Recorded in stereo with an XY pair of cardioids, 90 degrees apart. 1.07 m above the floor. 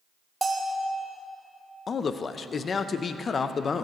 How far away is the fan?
No fan in this recording.